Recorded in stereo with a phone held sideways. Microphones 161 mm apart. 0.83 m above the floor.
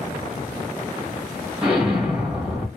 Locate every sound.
1.6 s an explosion: 5° right (ahead or behind), 1.3 m